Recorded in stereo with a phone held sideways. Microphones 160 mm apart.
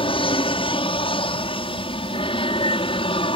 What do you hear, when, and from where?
0.0 s an aircraft: 35° left (ahead or behind)